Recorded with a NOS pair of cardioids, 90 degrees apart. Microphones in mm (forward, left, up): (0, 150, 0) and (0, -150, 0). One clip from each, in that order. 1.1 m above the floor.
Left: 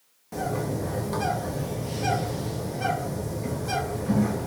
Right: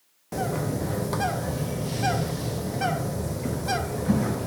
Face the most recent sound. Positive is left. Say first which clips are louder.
# right 1 dB
turn(degrees=-25)